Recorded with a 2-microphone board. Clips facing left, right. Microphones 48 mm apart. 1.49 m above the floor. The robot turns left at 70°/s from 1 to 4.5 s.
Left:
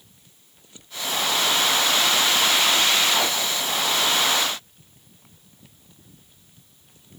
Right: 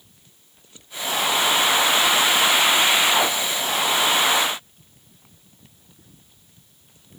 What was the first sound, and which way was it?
Only background noise.